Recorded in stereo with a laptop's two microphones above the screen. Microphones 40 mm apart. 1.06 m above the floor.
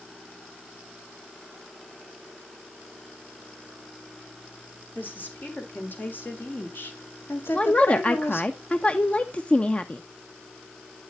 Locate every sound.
5.0 s a woman speaking: 55° left (ahead or behind), 4 m; by 8.5 s 75° left (ahead or behind), 1.7 m
7.5 s a woman speaking: 35° left (ahead or behind), 0.8 m